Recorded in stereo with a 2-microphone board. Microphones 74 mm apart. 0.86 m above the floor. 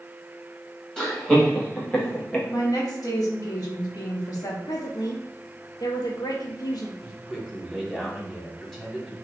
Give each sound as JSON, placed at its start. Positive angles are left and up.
{"t": 1.0, "sound": "laughter", "side_deg": 10, "distance_m": 1.7}
{"t": 2.5, "sound": "a woman speaking", "side_deg": 55, "distance_m": 1.3}
{"t": 4.7, "sound": "a woman speaking", "side_deg": 65, "distance_m": 0.9}
{"t": 7.0, "sound": "a man speaking", "side_deg": 5, "distance_m": 1.6}